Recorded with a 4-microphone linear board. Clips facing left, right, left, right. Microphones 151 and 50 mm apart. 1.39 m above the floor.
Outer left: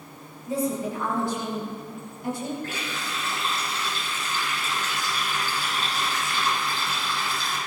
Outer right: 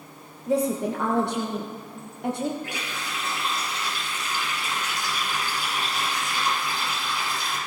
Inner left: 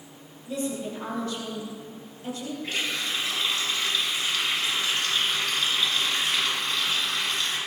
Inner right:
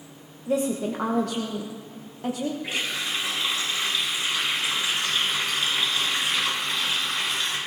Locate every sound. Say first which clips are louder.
0.5 s a woman speaking: outer right 3 dB, inner right 6 dB; 65° right (ahead or behind), 1.1 m
2.6 s a running tap: outer left 1 dB, inner right 1 dB; 15° right (ahead or behind), 7 m